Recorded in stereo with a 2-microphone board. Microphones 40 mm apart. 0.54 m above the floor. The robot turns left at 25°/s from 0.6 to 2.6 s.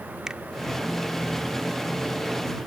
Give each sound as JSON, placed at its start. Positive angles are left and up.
{"t": 0.3, "sound": "a finger snap", "side_deg": -15}